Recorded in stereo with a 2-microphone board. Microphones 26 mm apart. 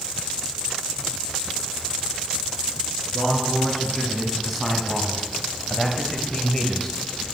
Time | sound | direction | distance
3.1 | a man speaking | 5° right (ahead or behind) | 3.5 m